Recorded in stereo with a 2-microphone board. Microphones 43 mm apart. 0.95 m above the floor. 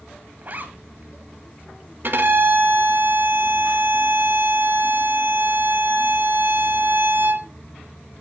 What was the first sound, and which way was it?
A zipper, 45° right (ahead or behind).